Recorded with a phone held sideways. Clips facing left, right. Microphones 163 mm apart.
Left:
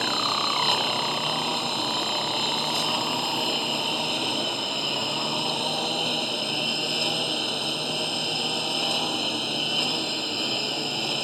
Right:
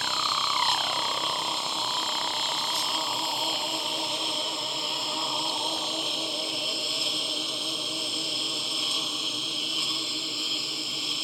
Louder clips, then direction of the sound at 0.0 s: Left 5 dB; 65° left (ahead or behind).